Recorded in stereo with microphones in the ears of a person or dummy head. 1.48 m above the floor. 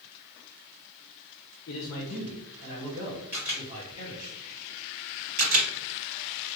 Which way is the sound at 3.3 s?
10° right (ahead or behind).